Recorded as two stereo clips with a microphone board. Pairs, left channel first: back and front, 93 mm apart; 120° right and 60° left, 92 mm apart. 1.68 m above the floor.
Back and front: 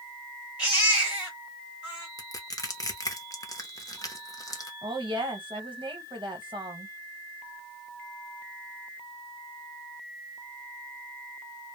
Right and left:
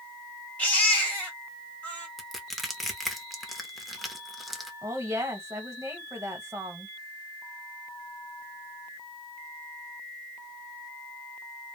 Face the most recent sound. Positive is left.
turn(degrees=5)